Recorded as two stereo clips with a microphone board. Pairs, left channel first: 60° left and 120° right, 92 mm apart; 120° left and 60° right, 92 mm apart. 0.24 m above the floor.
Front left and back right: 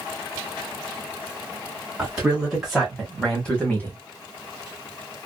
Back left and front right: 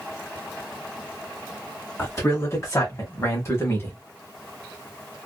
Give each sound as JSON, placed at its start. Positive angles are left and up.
{"t": 2.0, "sound": "a man speaking", "azimuth_deg": 165, "distance_m": 1.7}